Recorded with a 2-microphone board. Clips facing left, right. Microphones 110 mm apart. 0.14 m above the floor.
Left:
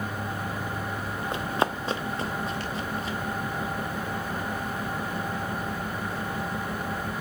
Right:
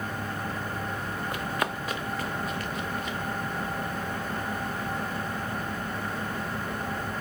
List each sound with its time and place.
1.3 s running footsteps: 25° left (ahead or behind), 0.6 m; by 3.2 s 30° left (ahead or behind), 1.6 m